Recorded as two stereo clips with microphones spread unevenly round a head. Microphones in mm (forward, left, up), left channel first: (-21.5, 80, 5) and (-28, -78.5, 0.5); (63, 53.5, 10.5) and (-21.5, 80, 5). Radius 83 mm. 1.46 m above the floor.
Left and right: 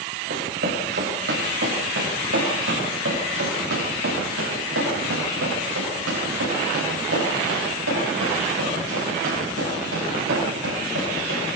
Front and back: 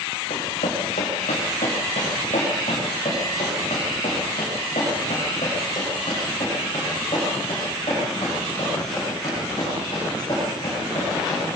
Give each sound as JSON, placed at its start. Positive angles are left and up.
{"t": 0.3, "sound": "running footsteps", "azimuth_deg": -50, "distance_m": 5.5}